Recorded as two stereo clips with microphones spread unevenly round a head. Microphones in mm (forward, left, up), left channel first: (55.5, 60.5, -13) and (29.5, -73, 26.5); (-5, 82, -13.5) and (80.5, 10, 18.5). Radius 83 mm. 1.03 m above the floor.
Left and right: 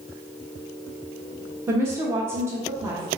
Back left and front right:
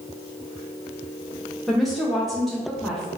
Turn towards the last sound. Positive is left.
turn(degrees=170)